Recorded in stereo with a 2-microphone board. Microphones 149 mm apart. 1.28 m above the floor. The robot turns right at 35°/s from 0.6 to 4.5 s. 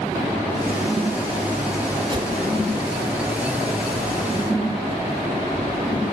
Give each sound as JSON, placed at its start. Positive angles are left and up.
{"t": 2.1, "sound": "a whoosh", "side_deg": -30, "distance_m": 2.5}